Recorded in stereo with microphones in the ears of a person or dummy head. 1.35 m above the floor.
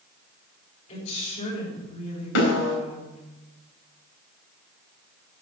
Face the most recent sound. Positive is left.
turn(degrees=70)  # may be behind; listen again after turning